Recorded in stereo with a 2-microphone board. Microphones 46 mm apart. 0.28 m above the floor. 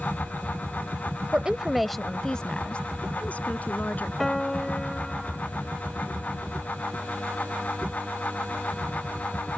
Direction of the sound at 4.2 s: 10° left (ahead or behind).